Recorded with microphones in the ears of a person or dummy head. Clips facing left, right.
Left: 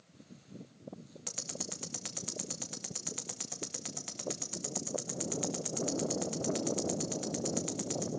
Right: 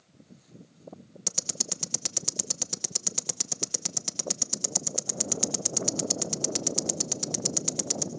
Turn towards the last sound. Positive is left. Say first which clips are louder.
# right 4 dB
turn(degrees=-45)  # may be behind; listen again after turning